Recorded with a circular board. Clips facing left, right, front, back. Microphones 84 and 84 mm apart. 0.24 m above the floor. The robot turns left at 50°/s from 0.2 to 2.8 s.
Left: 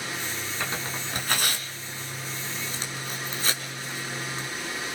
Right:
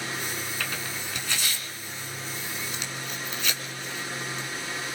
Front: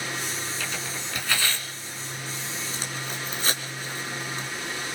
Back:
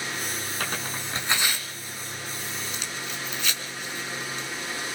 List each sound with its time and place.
0.6 s tearing paper: 155° left, 2.5 m; by 4.5 s 45° left, 2.5 m